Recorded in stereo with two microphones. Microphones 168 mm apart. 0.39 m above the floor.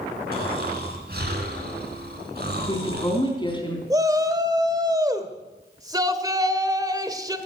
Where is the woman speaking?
25° left (ahead or behind), 3.5 m.